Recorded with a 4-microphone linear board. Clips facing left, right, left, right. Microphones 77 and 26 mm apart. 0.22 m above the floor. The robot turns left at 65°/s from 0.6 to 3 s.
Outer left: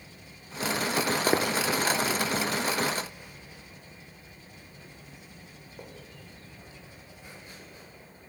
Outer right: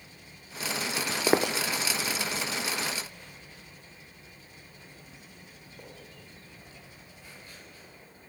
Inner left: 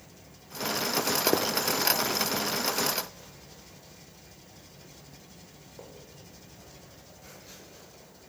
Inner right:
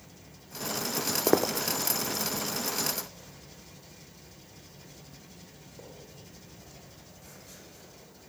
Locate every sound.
1.0 s footsteps: 40° left (ahead or behind), 0.5 m; by 7.9 s 25° left (ahead or behind), 5.5 m